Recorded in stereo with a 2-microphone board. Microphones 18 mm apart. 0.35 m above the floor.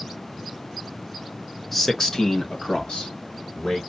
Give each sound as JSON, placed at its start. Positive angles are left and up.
{"t": 1.7, "sound": "a man speaking", "side_deg": 10, "distance_m": 0.9}